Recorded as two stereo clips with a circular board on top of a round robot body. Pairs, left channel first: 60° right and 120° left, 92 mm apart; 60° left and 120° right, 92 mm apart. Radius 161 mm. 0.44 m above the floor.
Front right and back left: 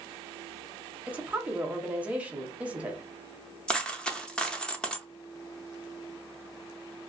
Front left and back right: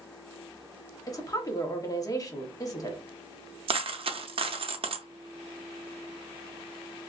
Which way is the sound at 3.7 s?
140° right.